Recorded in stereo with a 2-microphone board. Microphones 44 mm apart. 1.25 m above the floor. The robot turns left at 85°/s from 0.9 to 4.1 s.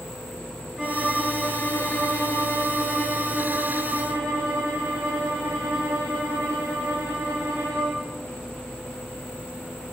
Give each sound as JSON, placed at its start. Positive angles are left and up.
{"t": 0.8, "sound": "a violin", "azimuth_deg": -170, "distance_m": 4.5}